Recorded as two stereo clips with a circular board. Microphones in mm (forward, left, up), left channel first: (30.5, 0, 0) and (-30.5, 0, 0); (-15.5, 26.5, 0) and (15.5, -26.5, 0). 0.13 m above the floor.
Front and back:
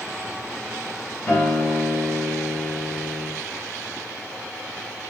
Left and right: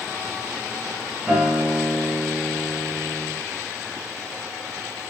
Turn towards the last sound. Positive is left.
turn(degrees=5)